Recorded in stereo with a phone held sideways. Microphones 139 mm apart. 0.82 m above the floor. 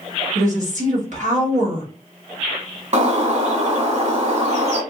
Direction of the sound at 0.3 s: 60° right (ahead or behind).